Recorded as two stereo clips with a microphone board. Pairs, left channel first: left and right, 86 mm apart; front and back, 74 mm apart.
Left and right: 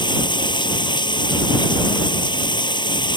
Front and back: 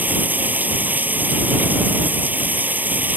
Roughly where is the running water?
Behind left.